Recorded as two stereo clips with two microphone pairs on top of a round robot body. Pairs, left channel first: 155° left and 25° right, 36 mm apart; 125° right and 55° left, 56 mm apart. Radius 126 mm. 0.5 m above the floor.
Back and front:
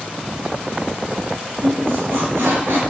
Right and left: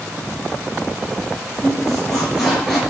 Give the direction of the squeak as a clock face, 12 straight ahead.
1 o'clock.